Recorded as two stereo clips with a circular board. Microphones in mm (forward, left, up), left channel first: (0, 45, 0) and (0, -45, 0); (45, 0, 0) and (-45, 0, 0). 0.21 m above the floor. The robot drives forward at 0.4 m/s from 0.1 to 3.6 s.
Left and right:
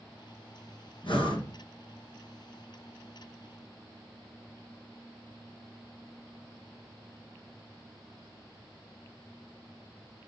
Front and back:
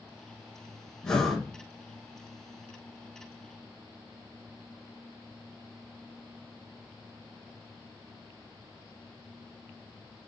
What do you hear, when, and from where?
1.0 s breathing: 80° left, 1.4 m; by 1.5 s 90° left, 1.4 m